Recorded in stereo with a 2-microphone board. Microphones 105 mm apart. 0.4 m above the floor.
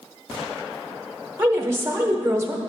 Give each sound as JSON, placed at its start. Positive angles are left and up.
{"t": 1.4, "sound": "a woman speaking", "side_deg": -25, "distance_m": 0.9}